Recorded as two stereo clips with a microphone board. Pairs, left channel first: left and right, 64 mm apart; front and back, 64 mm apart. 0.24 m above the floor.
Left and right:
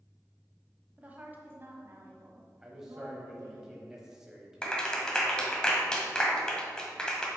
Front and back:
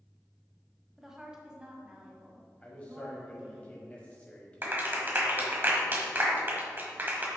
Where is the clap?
155° left, 1.3 m.